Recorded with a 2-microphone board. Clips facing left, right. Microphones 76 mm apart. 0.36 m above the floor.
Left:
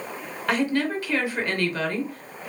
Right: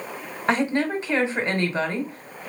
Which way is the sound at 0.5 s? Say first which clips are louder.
Right 1 dB; 25° right (ahead or behind).